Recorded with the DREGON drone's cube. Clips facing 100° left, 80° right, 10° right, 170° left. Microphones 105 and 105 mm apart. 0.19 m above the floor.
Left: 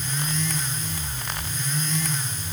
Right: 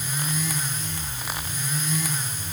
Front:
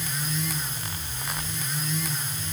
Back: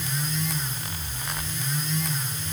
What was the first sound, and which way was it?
Only background noise.